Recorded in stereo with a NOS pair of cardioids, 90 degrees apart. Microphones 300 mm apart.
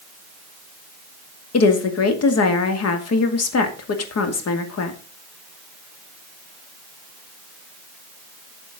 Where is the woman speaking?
55° left, 2.5 m.